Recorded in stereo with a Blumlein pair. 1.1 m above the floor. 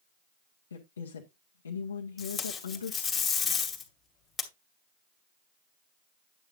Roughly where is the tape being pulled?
Ahead.